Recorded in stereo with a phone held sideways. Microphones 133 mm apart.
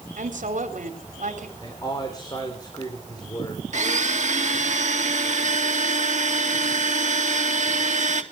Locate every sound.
0.2 s a woman speaking: 75° right (ahead or behind), 3 m
1.6 s a man speaking: 30° left (ahead or behind), 3.5 m
3.7 s a blender: 65° right (ahead or behind), 1.7 m